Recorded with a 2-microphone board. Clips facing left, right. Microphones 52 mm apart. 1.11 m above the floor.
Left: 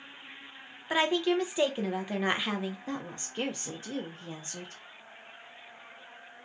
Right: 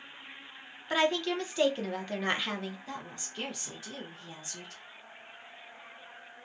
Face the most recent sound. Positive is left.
turn(degrees=30)  # may be behind; listen again after turning